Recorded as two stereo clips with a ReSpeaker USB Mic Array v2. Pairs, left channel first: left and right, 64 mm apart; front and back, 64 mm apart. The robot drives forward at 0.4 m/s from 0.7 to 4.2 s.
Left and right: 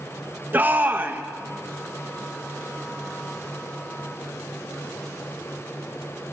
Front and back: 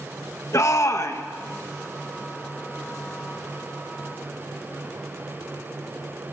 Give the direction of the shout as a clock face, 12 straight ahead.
1 o'clock.